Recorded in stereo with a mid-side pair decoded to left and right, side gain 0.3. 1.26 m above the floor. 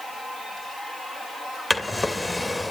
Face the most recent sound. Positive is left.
turn(degrees=15)